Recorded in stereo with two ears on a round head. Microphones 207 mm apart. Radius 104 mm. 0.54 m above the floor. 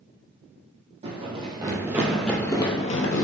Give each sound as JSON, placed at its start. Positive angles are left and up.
{"t": 1.0, "sound": "running footsteps", "side_deg": -30, "distance_m": 1.0}